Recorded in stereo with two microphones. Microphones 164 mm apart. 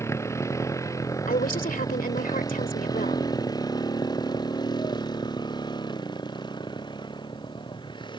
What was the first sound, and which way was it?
A motorcycle, 15° left (ahead or behind).